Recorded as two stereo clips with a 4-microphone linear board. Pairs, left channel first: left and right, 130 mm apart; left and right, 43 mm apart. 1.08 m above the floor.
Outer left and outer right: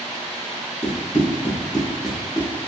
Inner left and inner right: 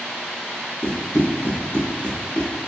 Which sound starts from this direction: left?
Running footsteps, at 0.8 s.